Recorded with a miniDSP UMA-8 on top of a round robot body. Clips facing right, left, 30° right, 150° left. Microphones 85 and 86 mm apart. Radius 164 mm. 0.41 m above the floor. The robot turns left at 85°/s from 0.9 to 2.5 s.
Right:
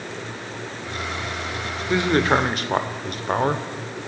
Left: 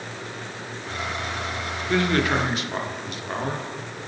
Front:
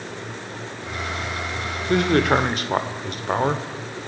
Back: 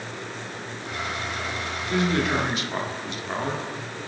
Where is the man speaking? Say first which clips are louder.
Right 3 dB, front 6 dB; 10° right, 2.5 m; by 3.7 s 60° right, 2.5 m.